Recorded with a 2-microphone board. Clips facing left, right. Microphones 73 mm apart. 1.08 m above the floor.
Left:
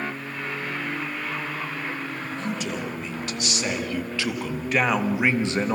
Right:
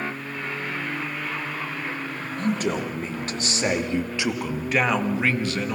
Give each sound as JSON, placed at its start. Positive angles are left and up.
{"t": 2.4, "sound": "a man speaking", "side_deg": -45, "distance_m": 3.0}